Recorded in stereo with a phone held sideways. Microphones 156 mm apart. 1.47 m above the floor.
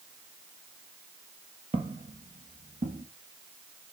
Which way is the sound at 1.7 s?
40° right (ahead or behind).